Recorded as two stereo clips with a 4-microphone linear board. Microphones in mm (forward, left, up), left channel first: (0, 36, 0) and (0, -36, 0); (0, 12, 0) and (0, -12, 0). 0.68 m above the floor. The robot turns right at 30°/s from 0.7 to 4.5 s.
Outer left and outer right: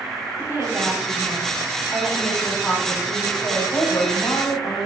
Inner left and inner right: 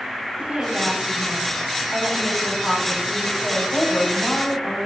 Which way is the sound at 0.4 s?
40° right.